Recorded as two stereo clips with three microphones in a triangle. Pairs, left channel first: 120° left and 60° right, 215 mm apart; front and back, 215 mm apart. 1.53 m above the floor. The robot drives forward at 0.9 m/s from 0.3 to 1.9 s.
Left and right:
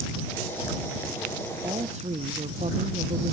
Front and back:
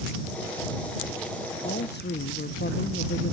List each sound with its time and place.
1.6 s a woman speaking: 10° right, 0.8 m